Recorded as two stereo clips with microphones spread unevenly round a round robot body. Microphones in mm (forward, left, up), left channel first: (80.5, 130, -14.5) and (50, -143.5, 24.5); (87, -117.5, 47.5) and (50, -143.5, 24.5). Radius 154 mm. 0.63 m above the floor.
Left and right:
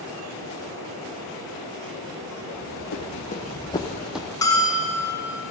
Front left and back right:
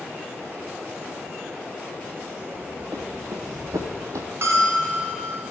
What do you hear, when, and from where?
2.5 s running footsteps: 145° left, 1.6 m; by 4.3 s 160° right, 0.7 m
4.4 s a bell: 165° left, 0.9 m